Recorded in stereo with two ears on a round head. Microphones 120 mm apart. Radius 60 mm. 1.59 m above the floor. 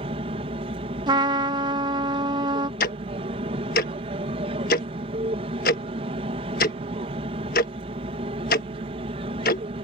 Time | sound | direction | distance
0.0 | an aircraft | 45° right (ahead or behind) | ?
1.1 | a trumpet | 30° right (ahead or behind) | ?
2.8 | ticking | 70° left (ahead or behind) | ?